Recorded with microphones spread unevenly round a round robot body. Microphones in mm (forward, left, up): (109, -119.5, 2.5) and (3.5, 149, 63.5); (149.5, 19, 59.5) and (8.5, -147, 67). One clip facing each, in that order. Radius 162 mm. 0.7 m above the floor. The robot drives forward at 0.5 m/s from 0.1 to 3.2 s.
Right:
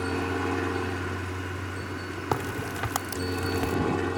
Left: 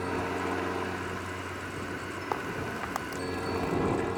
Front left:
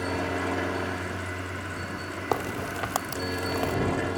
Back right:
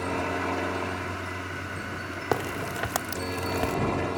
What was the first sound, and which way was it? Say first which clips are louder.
A helicopter: right 3 dB, front left 1 dB; 30° right.